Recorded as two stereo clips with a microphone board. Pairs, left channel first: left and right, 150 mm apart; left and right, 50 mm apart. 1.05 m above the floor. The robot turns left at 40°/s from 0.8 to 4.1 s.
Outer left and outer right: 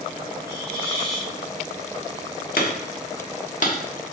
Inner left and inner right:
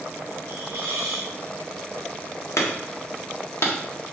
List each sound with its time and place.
0.5 s a hiss: 75° right (ahead or behind), 3 m; by 1.3 s 55° right (ahead or behind), 3 m
2.6 s hammering: 75° left (ahead or behind), 1.4 m; by 3.8 s 55° left (ahead or behind), 1.4 m